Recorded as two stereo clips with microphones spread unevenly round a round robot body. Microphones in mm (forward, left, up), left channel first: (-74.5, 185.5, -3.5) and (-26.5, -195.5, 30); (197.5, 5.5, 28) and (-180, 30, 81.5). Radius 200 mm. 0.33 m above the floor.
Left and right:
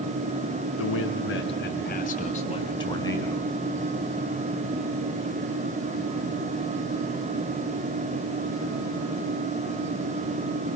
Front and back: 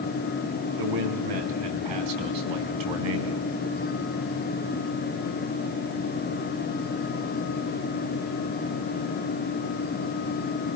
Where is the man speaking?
150° left, 4.5 m; by 3.5 s straight behind, 4 m.